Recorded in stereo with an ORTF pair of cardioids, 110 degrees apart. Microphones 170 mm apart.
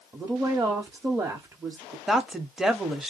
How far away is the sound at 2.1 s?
About 0.9 m.